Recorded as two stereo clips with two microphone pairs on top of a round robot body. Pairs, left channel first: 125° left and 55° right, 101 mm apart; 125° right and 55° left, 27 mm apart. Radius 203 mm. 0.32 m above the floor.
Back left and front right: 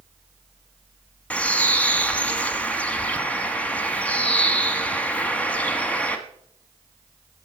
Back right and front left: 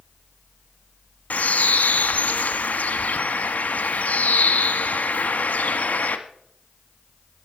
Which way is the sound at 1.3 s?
155° right.